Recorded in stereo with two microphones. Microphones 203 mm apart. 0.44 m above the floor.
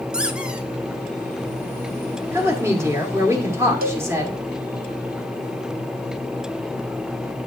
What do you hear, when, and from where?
0.1 s a squeak: 5° right (ahead or behind), 0.8 m
2.3 s a woman speaking: 15° right (ahead or behind), 1.3 m
3.8 s a cowbell: 50° right (ahead or behind), 0.5 m